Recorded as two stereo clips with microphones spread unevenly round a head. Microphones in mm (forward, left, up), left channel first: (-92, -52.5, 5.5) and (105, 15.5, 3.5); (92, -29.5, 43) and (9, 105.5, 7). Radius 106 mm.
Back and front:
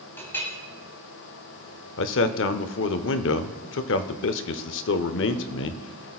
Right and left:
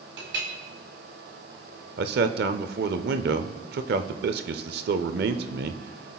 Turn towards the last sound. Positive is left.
turn(degrees=160)